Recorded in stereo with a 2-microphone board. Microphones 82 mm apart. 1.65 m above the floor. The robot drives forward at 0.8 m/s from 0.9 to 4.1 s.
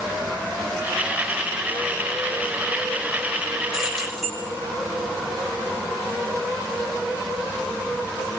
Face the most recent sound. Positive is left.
turn(degrees=-5)  # may be behind; listen again after turning